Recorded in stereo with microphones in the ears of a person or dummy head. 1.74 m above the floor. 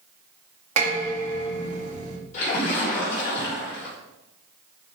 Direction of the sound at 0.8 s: 45° right (ahead or behind).